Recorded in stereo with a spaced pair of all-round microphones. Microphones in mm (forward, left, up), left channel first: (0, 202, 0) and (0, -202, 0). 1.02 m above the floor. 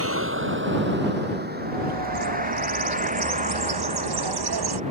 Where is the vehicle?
30° right (ahead or behind); by 4.9 s 15° right (ahead or behind).